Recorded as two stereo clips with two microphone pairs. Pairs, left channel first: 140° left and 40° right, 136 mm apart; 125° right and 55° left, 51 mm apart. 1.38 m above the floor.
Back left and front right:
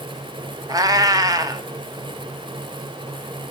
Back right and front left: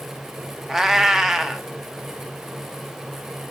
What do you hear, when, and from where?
0.7 s a cat meowing: 25° right, 0.7 m